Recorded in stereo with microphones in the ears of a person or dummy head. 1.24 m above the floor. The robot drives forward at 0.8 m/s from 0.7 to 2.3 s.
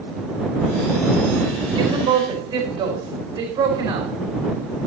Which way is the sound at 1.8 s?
30° right (ahead or behind).